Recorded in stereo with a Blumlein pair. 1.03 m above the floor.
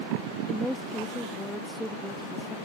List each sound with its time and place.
0.5 s a woman speaking: 5° left